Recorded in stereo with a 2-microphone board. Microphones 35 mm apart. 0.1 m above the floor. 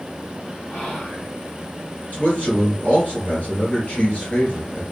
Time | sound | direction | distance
0.7 | whispering | 40° left (ahead or behind) | 1.6 m
2.1 | a man speaking | 45° left (ahead or behind) | 1.5 m